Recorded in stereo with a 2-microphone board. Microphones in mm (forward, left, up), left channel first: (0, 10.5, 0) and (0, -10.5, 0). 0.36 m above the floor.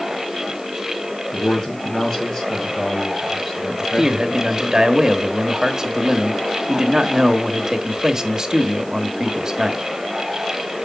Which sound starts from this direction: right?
A man speaking, at 3.7 s.